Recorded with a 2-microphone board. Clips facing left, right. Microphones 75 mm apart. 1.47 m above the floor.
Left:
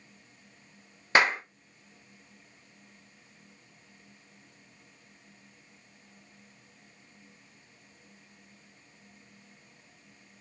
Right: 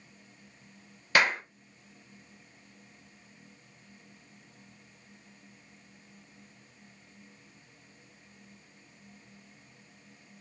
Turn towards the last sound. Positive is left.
turn(degrees=25)  # may be behind; listen again after turning